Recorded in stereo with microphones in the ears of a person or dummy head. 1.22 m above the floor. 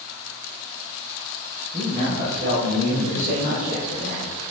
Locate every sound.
1.7 s a man speaking: 30° right (ahead or behind), 4 m; by 4.3 s 50° right (ahead or behind), 6.5 m